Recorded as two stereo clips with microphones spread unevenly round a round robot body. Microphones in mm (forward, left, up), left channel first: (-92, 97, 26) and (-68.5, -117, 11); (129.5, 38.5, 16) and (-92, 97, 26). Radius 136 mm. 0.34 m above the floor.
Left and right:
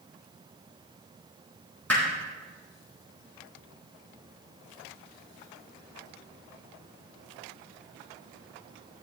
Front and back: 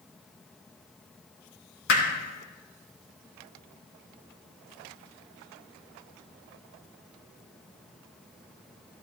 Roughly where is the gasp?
No gasp in this recording.